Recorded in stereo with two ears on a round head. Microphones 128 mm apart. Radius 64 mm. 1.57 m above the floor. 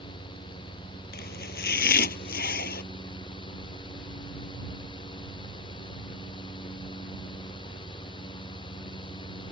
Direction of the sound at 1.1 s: 75° left (ahead or behind).